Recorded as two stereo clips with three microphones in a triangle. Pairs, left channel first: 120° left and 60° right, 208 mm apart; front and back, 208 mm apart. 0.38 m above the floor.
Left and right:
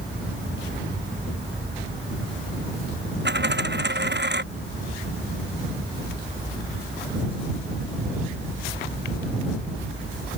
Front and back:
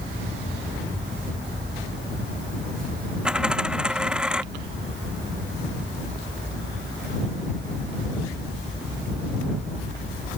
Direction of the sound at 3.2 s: 95° right.